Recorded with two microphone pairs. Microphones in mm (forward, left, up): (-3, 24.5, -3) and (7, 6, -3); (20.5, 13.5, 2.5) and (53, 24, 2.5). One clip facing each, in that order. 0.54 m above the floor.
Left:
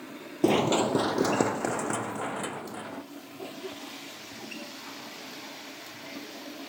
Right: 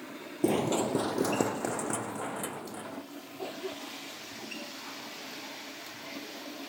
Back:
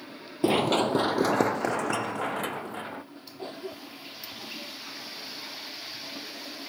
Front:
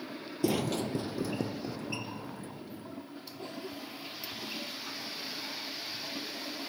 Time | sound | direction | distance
0.4 | running footsteps | 145° left | ?
3.4 | a cough | 110° right | ?